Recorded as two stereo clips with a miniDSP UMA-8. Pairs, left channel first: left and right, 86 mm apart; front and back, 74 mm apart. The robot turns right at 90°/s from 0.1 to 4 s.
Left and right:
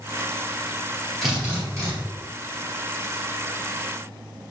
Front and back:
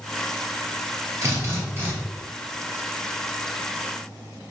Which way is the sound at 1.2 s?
Straight behind.